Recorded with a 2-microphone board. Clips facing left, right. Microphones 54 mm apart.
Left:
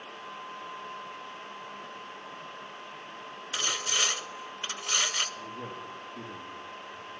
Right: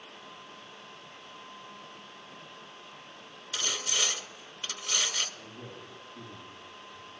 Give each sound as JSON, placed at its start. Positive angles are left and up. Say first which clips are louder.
{"t": 3.5, "sound": "sawing", "louder": "left 2 dB", "side_deg": 35, "distance_m": 1.5}
{"t": 5.4, "sound": "a man speaking", "louder": "left 6 dB", "side_deg": 75, "distance_m": 7.5}